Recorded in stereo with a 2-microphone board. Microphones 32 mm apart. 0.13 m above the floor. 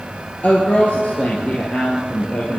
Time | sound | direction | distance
0.4 | a woman speaking | 50° left (ahead or behind) | 3 m